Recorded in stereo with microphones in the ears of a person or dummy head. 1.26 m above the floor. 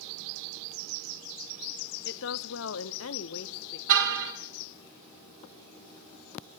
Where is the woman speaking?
55° left (ahead or behind), 1.0 m; by 3.8 s 60° left (ahead or behind), 1.3 m.